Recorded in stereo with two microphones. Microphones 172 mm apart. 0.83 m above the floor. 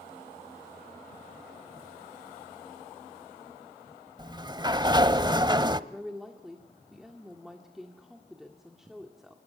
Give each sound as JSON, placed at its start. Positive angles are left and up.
{"t": 4.2, "sound": "a sliding door", "side_deg": -25, "distance_m": 0.7}
{"t": 5.9, "sound": "a woman speaking", "side_deg": 0, "distance_m": 1.8}